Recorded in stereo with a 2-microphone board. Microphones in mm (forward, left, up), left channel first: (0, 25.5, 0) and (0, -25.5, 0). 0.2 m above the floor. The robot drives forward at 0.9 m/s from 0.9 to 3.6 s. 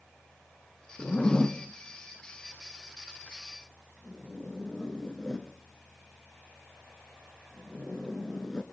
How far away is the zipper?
About 1.3 m.